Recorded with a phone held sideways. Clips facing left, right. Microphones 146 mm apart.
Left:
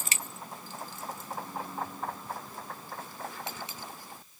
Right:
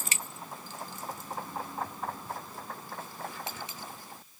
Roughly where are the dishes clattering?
I don't hear dishes clattering.